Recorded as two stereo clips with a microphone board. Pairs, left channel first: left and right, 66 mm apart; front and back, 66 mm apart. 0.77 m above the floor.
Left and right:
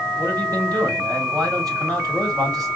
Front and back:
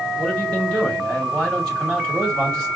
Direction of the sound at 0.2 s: 75° right.